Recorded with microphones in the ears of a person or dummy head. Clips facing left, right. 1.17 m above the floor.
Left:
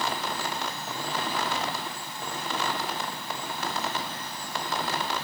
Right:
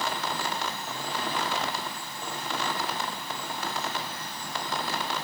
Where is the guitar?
No guitar in this recording.